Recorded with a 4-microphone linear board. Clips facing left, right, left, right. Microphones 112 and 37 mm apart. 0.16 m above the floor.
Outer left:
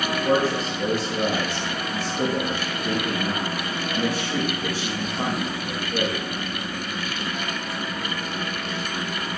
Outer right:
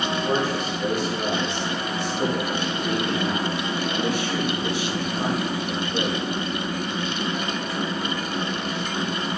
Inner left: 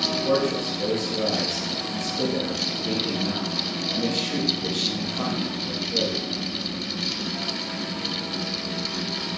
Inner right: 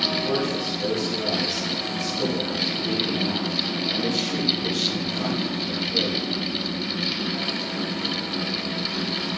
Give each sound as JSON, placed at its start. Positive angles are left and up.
{"t": 0.1, "sound": "a man speaking", "side_deg": 40, "distance_m": 7.5}